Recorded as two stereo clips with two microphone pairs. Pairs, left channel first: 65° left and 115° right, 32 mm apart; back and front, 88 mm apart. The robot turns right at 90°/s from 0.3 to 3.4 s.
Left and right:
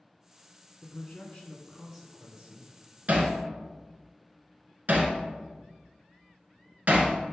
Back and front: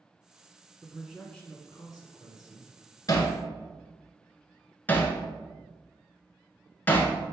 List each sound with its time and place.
0.8 s a man speaking: 55° left, 1.6 m; by 2.7 s 130° right, 1.6 m
3.1 s hammering: 145° right, 1.4 m; by 7.1 s 115° right, 1.4 m